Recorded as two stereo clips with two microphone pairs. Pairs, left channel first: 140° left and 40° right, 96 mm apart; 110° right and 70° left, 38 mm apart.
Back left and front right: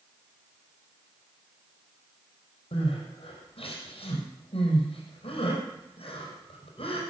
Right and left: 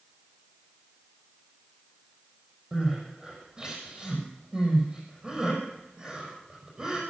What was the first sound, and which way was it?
Crying, 145° left.